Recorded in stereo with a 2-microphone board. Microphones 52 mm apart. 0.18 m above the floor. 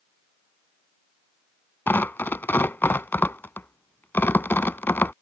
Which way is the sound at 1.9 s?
45° left (ahead or behind).